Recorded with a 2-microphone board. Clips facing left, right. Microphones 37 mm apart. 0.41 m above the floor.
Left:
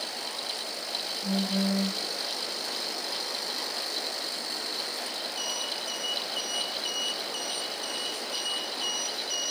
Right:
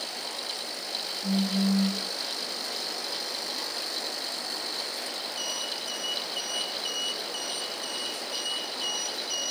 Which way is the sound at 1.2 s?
55° left (ahead or behind).